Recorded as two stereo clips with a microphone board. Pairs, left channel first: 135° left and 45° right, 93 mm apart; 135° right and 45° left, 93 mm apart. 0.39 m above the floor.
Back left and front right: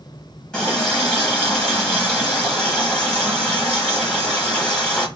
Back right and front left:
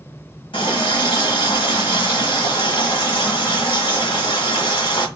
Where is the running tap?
140° right, 1.3 m.